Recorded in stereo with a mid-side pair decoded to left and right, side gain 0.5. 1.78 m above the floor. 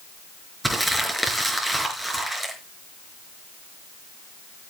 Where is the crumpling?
5° right, 5.5 m.